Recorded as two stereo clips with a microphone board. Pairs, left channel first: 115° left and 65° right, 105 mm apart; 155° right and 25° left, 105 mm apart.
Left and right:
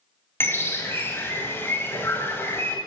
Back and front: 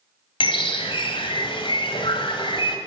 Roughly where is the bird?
Behind.